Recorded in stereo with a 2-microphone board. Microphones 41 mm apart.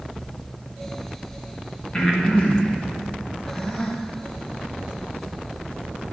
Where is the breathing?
20° left (ahead or behind), 1.5 m.